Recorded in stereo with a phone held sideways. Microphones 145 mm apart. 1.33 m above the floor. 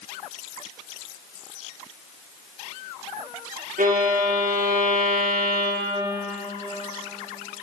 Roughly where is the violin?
Right.